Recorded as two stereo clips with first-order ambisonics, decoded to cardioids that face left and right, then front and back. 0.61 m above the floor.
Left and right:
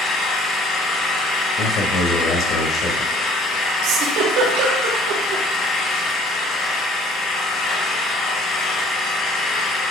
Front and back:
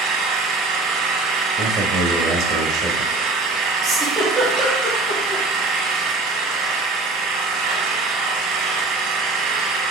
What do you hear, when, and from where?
0.0 s an engine running: 145° left, 2 m
1.6 s a man speaking: 135° left, 1.9 m
3.8 s a giggle: 110° right, 3 m